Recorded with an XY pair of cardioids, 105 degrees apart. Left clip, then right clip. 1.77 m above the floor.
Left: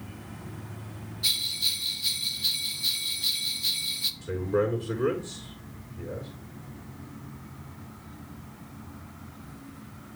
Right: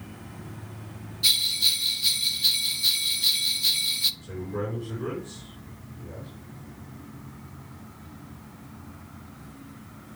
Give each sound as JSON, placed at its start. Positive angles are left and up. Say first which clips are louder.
{"t": 1.2, "sound": "a bell", "louder": "right 5 dB", "azimuth_deg": -30, "distance_m": 0.7}
{"t": 4.2, "sound": "a man speaking", "louder": "left 6 dB", "azimuth_deg": 65, "distance_m": 5.0}